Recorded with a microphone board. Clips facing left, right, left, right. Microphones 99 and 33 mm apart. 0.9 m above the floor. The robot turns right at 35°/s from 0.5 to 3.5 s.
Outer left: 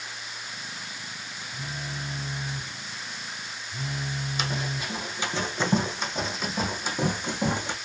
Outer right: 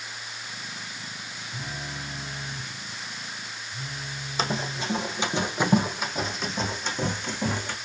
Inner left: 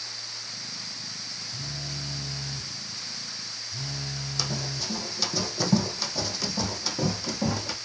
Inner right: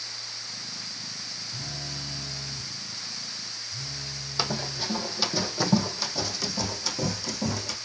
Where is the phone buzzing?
20° right, 1.1 m; by 4.9 s 50° left, 1.1 m.